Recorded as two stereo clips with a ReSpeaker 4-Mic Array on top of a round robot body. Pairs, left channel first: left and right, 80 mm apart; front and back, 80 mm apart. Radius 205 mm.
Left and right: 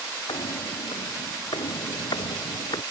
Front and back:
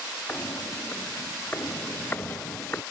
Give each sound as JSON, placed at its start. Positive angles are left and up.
{"t": 0.3, "sound": "footsteps", "azimuth_deg": 70}